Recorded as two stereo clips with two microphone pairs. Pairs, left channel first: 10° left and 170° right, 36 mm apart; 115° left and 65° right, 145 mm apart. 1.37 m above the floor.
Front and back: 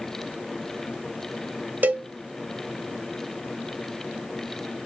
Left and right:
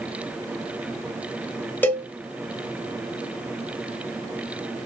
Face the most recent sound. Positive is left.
turn(degrees=-170)